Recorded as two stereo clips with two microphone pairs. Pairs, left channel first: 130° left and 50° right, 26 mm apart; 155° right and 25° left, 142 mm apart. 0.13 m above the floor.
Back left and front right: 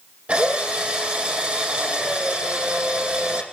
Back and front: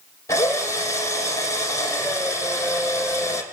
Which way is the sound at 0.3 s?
85° right.